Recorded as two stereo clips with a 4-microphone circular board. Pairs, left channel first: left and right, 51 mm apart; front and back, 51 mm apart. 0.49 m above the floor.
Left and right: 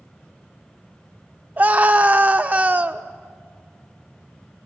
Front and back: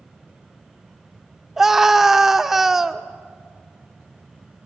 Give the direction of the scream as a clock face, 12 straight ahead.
3 o'clock.